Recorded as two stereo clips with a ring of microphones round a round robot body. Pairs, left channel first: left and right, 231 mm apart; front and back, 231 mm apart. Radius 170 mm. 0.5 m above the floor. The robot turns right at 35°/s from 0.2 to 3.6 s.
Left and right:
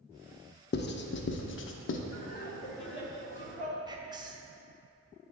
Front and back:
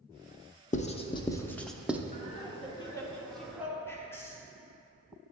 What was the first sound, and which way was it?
Writing, 55° left.